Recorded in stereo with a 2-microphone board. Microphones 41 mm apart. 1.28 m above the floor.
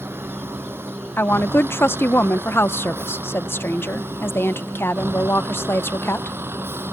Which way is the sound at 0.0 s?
80° right.